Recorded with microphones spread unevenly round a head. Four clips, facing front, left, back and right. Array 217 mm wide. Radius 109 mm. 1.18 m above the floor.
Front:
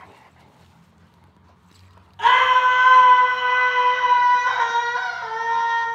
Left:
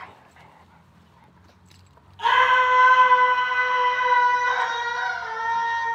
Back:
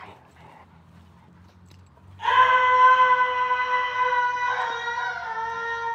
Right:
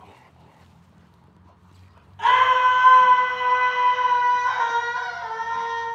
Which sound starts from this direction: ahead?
A scream, at 2.2 s.